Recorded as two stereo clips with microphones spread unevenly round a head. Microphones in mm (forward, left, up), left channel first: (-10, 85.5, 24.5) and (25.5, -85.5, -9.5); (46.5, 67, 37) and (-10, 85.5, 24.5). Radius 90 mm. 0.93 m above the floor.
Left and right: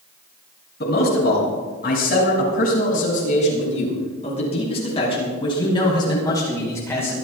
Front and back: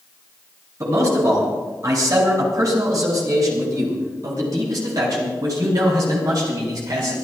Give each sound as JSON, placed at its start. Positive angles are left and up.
{"t": 0.8, "sound": "a man speaking", "azimuth_deg": 140, "distance_m": 7.5}